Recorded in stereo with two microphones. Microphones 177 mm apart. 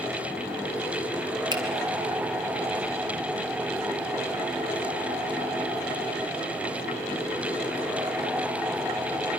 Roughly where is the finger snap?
Right.